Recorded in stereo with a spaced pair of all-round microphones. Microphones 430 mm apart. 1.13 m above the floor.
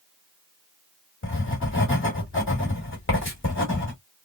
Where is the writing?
30° left (ahead or behind), 1.7 m.